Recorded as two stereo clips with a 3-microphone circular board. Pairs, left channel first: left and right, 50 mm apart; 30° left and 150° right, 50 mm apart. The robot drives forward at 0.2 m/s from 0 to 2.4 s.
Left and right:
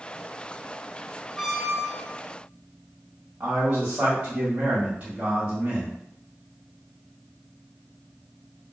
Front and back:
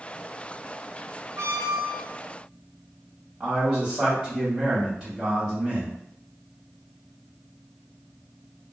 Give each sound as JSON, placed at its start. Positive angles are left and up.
{"t": 1.4, "sound": "a squeak", "azimuth_deg": -175, "distance_m": 0.8}
{"t": 3.4, "sound": "a man speaking", "azimuth_deg": -100, "distance_m": 1.2}